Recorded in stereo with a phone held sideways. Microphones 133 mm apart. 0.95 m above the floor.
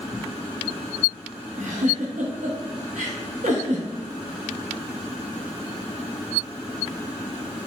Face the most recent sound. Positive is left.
turn(degrees=-75)  # may be behind; listen again after turning